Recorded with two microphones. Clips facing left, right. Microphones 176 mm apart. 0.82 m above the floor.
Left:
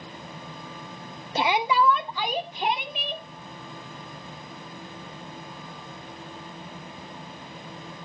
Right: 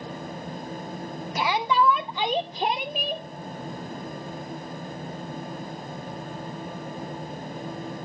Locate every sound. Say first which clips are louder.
1.4 s a shout: left 1 dB; 30° left (ahead or behind), 0.6 m; by 3.2 s 50° right (ahead or behind), 1.1 m